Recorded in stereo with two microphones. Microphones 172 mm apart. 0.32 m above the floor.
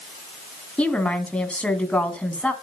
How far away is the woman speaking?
About 2.5 m.